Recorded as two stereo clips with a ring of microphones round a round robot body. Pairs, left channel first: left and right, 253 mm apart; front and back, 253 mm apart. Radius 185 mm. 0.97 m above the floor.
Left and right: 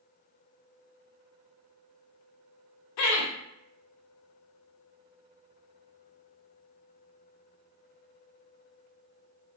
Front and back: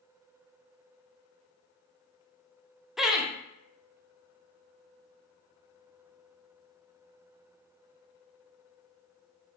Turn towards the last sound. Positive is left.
turn(degrees=90)